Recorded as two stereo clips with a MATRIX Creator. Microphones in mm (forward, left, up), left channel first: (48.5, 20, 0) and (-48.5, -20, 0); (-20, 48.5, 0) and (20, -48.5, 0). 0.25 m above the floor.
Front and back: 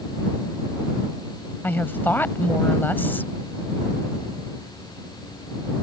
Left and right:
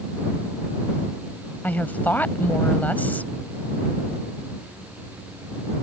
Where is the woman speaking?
60° left.